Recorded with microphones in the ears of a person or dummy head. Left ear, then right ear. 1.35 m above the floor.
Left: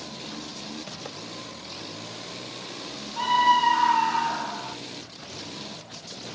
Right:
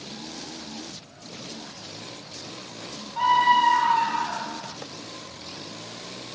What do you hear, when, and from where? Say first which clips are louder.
3.2 s a scream: right 1 dB; 15° right (ahead or behind), 2.5 m; by 4.8 s 10° left (ahead or behind), 2.5 m